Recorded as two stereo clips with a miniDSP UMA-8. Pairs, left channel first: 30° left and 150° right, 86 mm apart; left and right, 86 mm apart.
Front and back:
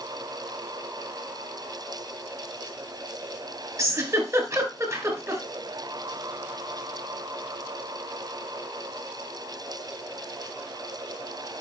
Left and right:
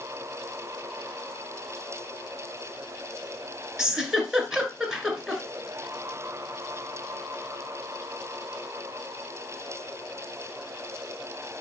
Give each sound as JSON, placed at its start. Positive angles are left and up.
{"t": 3.8, "sound": "a giggle", "azimuth_deg": -170, "distance_m": 1.9}